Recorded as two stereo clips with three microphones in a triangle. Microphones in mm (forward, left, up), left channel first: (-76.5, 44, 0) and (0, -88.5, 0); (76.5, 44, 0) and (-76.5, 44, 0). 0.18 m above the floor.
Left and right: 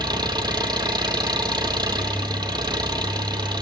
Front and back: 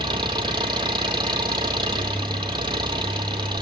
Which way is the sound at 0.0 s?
120° right.